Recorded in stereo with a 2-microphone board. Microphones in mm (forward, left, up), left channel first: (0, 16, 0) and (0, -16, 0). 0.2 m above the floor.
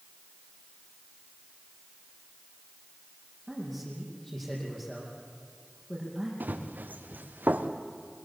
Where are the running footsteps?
80° right, 2.5 m; by 7.7 s 75° right (ahead or behind), 1.9 m.